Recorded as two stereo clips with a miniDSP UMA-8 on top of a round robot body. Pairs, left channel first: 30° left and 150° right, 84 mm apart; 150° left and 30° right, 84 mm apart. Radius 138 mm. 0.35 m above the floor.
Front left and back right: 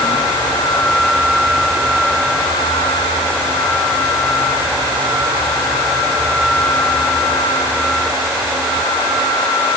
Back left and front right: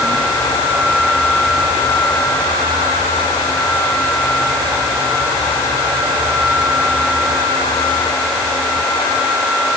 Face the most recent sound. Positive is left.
No sound to turn to.